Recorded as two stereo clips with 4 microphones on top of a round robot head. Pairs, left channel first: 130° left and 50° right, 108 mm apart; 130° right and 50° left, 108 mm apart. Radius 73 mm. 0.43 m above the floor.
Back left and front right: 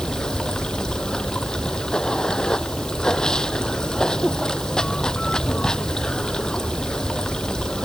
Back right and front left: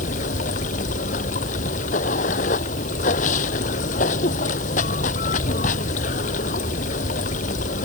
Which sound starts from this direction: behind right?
Running water, at 0.0 s.